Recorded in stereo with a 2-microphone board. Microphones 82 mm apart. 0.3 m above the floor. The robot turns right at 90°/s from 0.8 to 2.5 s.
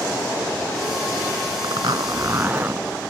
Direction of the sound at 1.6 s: 100° right.